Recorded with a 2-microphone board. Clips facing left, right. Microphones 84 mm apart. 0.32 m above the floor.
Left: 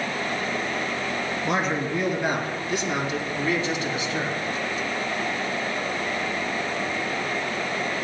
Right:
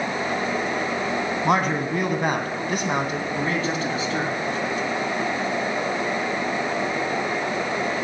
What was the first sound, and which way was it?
A man speaking, 65° right (ahead or behind).